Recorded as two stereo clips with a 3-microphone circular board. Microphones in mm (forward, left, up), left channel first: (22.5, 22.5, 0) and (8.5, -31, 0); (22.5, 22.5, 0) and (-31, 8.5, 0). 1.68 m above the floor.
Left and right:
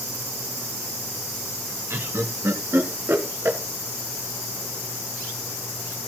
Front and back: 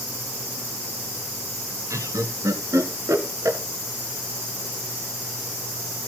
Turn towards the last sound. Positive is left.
turn(degrees=-145)